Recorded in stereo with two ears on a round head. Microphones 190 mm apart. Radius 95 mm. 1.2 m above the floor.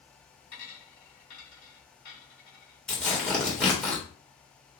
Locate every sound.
0.5 s a dropped coin: 45° left (ahead or behind), 2 m
2.9 s tearing paper: 5° left (ahead or behind), 1.6 m